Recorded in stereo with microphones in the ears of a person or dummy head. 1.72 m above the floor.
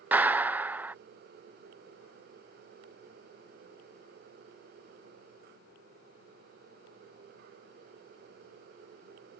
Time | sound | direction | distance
0.1 | a clap | 10° right (ahead or behind) | ?